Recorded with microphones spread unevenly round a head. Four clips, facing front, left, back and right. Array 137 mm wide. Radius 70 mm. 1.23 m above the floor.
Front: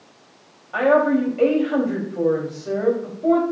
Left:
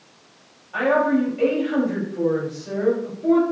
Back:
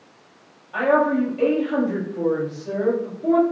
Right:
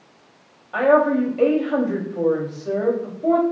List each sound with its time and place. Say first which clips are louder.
0.7 s a woman speaking: right 3 dB, front 2 dB; 45° right, 2.5 m